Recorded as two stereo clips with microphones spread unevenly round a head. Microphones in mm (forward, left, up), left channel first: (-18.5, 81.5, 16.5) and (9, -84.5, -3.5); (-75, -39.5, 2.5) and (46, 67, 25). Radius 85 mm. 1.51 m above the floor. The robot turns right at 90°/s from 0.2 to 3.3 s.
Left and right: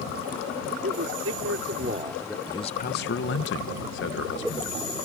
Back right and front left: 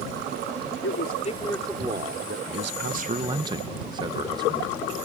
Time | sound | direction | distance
0.8 | a man speaking | 125° right | ?
2.5 | a man speaking | 30° left | ?